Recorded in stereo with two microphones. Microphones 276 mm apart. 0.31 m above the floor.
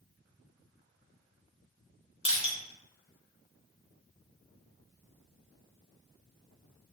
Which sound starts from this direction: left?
Crushing, at 2.2 s.